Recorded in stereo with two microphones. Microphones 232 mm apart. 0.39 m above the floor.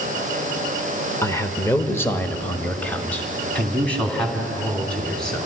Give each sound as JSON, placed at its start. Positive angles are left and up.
{"t": 1.2, "sound": "a man speaking", "side_deg": 15, "distance_m": 0.9}